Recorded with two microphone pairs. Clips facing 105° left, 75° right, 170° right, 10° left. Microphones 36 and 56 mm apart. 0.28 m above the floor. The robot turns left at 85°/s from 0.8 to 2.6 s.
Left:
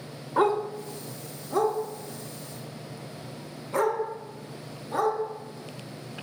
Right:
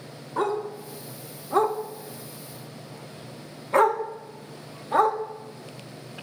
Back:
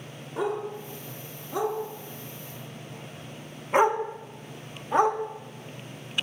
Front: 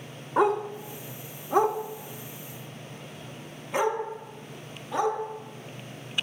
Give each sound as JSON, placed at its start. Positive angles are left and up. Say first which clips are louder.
{"t": 0.4, "sound": "a dog barking", "louder": "left 3 dB, front 6 dB", "azimuth_deg": 35, "distance_m": 0.8}